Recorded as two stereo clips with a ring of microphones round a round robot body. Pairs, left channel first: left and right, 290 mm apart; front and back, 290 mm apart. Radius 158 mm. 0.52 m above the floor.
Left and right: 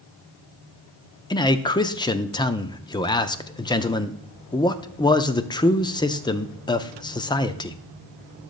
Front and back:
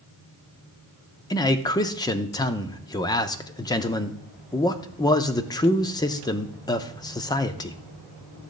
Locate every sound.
1.3 s a man speaking: 45° left, 0.6 m